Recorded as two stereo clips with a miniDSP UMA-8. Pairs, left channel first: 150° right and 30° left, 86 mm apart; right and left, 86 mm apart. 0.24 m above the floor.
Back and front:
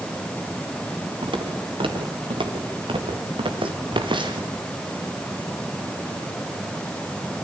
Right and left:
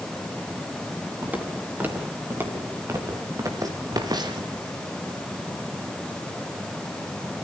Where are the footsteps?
20° left, 5 m; by 4.5 s 55° left, 3 m.